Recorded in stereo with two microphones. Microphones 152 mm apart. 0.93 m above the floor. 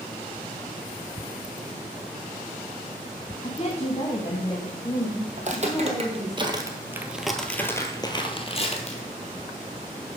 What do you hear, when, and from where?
3.4 s a woman speaking: 45° left (ahead or behind), 0.9 m; by 6.4 s 30° left (ahead or behind), 2.5 m
5.4 s footsteps: 50° right (ahead or behind), 1.5 m; by 9.0 s 50° left (ahead or behind), 1.4 m